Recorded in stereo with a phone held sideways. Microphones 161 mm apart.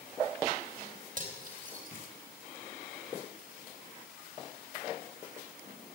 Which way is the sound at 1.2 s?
55° right (ahead or behind).